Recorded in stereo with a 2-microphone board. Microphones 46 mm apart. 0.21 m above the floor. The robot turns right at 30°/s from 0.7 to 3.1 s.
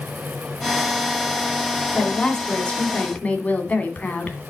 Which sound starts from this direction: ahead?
A woman speaking, at 1.9 s.